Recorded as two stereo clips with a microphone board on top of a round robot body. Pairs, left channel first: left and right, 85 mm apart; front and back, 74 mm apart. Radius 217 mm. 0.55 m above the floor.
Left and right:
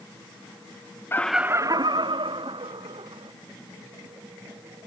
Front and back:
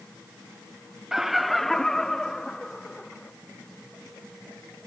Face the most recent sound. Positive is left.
turn(degrees=-85)